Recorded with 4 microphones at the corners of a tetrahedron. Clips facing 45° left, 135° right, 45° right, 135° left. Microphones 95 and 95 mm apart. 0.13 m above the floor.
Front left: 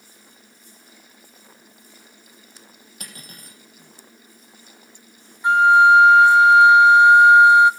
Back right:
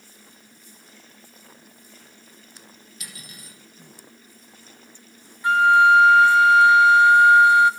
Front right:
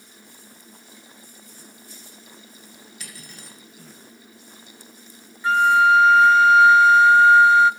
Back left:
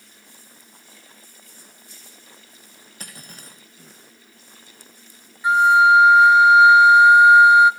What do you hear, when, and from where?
3.0 s cutlery clinking: 90° left, 4 m
5.4 s a flute: 85° left, 0.7 m